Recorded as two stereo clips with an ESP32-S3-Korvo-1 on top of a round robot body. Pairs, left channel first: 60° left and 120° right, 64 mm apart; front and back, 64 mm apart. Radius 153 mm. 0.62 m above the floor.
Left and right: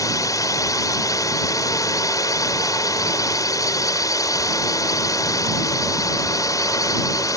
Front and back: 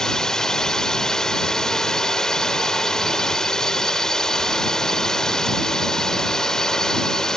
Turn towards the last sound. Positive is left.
turn(degrees=80)